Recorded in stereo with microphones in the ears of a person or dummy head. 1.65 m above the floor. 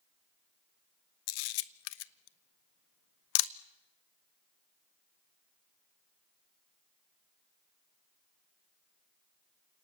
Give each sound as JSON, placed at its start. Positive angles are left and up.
{"t": 1.3, "sound": "a camera shutter", "side_deg": 75, "distance_m": 0.7}